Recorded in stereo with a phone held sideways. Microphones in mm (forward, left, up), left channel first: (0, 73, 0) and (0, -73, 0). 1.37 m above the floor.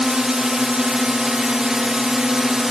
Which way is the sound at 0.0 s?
5° right (ahead or behind).